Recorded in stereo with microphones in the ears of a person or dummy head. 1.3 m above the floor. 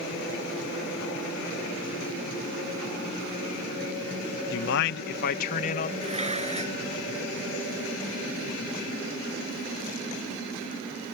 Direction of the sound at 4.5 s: 60° left (ahead or behind).